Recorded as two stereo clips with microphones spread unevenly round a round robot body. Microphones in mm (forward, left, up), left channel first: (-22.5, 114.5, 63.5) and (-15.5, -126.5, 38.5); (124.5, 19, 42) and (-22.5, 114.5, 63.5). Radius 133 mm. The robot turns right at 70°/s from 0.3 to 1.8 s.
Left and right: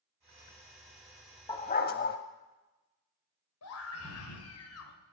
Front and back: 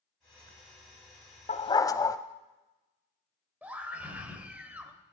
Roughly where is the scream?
Ahead left.